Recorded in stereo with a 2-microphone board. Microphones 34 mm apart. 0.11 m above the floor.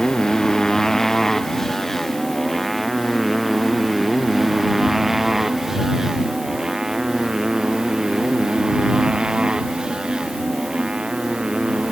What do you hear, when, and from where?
0.0 s a motorcycle: 20° left (ahead or behind); by 11.9 s 30° right (ahead or behind)